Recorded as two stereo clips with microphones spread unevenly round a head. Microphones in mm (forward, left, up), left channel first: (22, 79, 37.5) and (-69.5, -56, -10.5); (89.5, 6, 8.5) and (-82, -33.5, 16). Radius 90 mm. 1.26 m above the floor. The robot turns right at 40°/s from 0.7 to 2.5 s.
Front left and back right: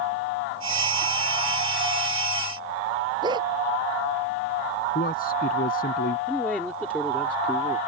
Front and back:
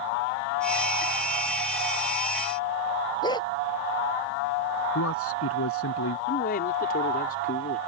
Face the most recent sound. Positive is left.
turn(degrees=-25)